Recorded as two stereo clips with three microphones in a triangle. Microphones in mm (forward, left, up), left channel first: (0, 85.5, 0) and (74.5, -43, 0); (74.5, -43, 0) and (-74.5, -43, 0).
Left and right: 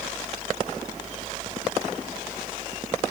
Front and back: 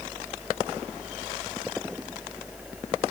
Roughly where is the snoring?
I don't hear snoring.